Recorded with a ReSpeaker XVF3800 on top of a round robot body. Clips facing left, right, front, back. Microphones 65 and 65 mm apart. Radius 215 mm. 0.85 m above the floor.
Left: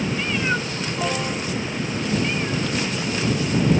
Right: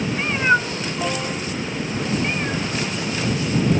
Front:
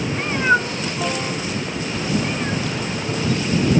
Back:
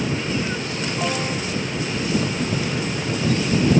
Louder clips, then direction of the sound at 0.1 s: Right 5 dB, front 7 dB; 35° right.